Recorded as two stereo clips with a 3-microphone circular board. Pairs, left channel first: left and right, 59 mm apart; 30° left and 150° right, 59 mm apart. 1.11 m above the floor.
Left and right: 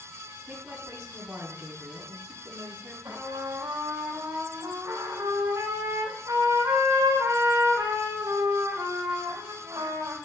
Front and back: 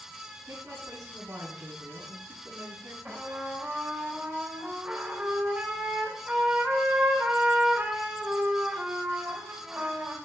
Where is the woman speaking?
135° right, 8.5 m.